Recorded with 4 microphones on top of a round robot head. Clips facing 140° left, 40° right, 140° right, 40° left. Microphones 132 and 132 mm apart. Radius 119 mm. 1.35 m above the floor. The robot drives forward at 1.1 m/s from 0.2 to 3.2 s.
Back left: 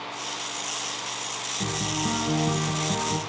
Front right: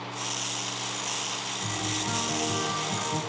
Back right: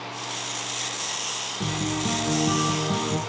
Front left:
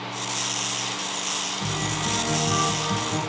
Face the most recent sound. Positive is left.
turn(degrees=180)